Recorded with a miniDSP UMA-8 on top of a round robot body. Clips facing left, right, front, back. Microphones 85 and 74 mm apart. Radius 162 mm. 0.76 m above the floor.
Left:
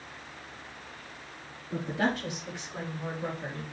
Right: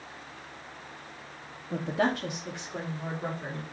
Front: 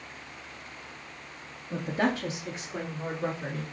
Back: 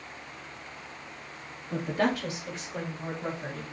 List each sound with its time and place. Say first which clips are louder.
1.7 s a woman speaking: right 2 dB, back 1 dB; 85° right, 1.3 m; by 3.6 s 25° right, 3.5 m